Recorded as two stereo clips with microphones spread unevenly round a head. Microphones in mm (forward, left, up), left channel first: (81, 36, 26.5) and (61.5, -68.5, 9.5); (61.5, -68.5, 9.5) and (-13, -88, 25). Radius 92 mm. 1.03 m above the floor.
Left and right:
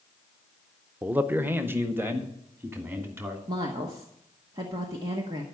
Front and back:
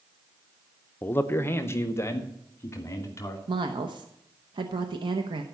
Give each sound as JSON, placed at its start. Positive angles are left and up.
{"t": 1.0, "sound": "a man speaking", "azimuth_deg": -35, "distance_m": 0.8}
{"t": 3.5, "sound": "a woman speaking", "azimuth_deg": -155, "distance_m": 1.0}